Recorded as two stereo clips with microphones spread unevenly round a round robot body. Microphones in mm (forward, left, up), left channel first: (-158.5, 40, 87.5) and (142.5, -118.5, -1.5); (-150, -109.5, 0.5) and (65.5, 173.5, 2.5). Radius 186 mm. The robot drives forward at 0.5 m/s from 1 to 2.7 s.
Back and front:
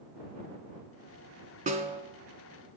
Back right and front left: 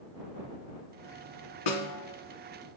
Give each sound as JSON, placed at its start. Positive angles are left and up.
{"t": 1.7, "sound": "a snare drum", "azimuth_deg": -100, "distance_m": 1.8}